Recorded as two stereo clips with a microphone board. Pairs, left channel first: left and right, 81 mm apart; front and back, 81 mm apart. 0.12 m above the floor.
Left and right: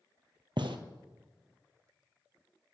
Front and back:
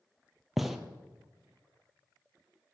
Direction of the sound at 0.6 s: 95° right.